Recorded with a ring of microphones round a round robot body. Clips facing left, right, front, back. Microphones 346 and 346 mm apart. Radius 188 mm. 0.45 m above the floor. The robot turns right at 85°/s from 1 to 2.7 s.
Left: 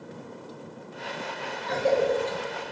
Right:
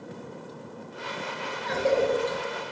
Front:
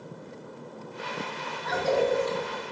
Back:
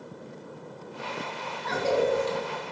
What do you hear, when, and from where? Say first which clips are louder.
1.6 s a cough: even, even; 160° left, 0.8 m; by 2.4 s 135° right, 0.8 m